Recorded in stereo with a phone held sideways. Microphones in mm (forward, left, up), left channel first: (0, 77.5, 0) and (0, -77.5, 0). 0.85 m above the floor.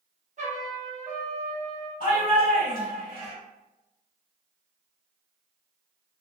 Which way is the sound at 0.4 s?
50° right (ahead or behind).